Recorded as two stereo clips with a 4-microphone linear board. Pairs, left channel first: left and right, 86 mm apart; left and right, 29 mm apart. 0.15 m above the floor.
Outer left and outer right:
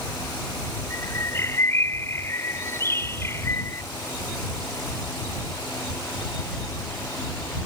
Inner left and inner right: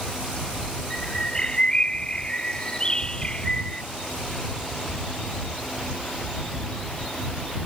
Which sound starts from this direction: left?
A bird, at 0.9 s.